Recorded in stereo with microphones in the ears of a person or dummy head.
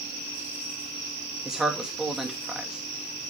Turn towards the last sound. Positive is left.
turn(degrees=-5)  # may be behind; listen again after turning